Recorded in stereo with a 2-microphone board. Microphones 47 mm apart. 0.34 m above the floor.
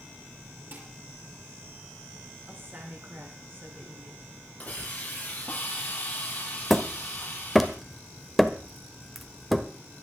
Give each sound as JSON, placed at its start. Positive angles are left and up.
{"t": 0.7, "sound": "dishes clattering", "side_deg": -50, "distance_m": 5.0}
{"t": 2.5, "sound": "a woman speaking", "side_deg": -50, "distance_m": 5.5}
{"t": 4.6, "sound": "a hiss", "side_deg": 30, "distance_m": 7.0}
{"t": 6.7, "sound": "hammering", "side_deg": 0, "distance_m": 1.3}